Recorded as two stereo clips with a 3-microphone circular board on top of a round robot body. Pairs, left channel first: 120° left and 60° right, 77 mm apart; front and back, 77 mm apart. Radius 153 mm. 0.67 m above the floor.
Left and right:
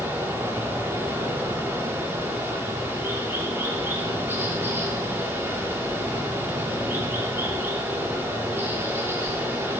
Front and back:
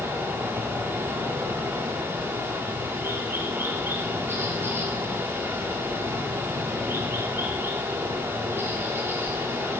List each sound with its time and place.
0.0 s running water: 120° right, 8 m